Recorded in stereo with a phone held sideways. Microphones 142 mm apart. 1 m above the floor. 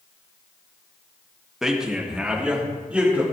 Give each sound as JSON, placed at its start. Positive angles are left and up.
{"t": 1.6, "sound": "a man speaking", "side_deg": -5, "distance_m": 1.5}